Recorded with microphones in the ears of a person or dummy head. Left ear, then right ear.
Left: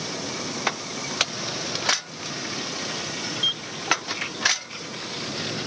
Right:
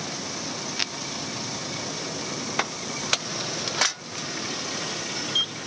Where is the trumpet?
I don't hear a trumpet.